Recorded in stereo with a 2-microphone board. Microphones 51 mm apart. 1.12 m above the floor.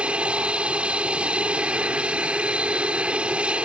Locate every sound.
0.0 s an aircraft: 20° right (ahead or behind)